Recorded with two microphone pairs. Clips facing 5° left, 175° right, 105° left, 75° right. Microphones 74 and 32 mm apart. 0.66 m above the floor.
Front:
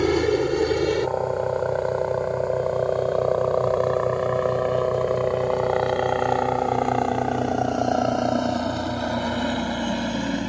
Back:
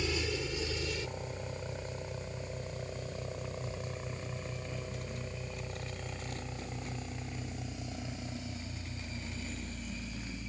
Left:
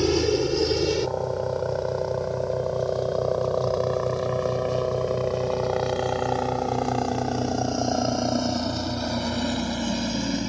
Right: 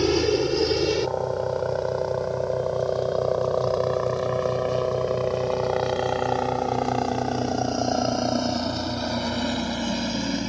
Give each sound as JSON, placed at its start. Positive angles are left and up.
{"t": 0.0, "sound": "a helicopter", "azimuth_deg": 5}